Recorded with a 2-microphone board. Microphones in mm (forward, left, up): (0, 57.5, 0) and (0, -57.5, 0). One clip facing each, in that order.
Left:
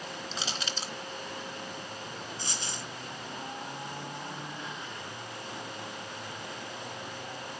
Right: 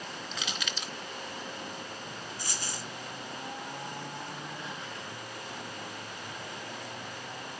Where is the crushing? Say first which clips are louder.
Left 1 dB; 35° left (ahead or behind), 0.8 m.